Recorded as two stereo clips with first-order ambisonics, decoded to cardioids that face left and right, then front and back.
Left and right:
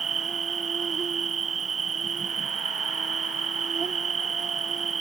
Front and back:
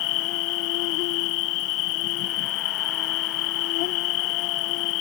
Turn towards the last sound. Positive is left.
turn(degrees=-20)